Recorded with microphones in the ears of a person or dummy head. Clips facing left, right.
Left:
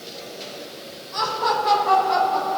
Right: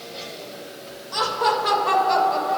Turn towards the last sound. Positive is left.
turn(degrees=-85)